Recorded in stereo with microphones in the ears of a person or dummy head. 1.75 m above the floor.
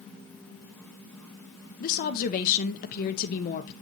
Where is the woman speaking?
45° left (ahead or behind), 0.9 m.